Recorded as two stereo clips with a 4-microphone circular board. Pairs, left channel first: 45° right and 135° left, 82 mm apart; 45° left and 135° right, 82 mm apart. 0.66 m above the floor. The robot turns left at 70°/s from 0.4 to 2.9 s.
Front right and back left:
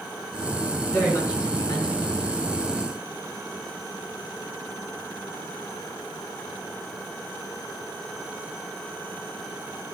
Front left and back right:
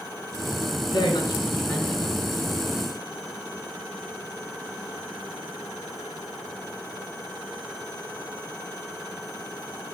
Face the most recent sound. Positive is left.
turn(degrees=-105)